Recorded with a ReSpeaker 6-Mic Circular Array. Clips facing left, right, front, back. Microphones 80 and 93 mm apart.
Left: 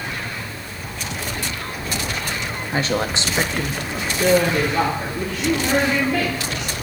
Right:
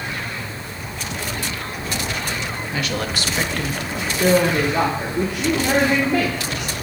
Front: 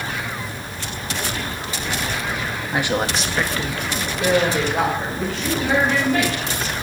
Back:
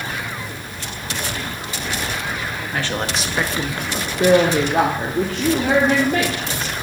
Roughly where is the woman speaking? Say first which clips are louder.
Left 4 dB, front 3 dB; ahead left.